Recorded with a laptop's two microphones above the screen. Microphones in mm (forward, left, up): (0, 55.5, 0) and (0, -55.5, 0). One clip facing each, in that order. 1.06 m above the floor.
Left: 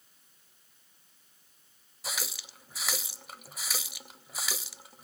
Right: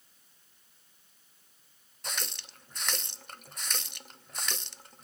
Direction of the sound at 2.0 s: 5° left (ahead or behind).